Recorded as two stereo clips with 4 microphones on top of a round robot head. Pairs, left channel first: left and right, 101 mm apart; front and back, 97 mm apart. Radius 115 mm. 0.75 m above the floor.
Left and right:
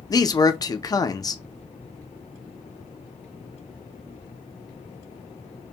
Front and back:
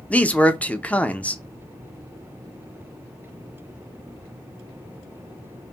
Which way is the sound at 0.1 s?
70° left.